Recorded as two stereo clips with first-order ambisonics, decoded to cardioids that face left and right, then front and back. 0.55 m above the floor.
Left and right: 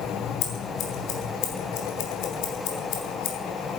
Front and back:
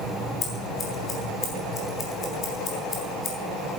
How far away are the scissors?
About 4 m.